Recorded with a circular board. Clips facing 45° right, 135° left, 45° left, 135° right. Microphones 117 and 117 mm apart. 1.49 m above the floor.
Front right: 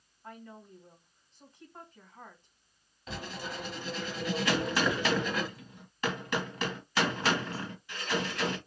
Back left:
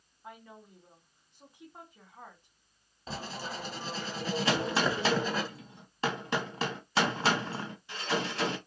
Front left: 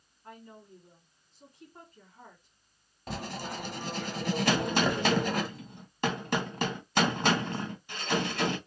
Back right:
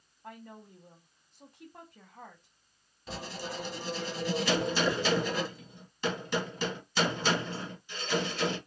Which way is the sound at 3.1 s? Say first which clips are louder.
Back left 1 dB, front left 2 dB; 80° left.